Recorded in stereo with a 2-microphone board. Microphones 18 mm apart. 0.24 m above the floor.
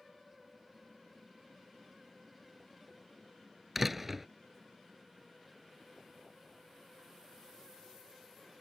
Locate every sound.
3.8 s a door slam: 10° right (ahead or behind)